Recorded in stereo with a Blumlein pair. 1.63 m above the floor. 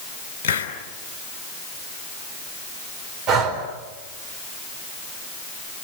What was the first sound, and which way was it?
A hiss, 55° left.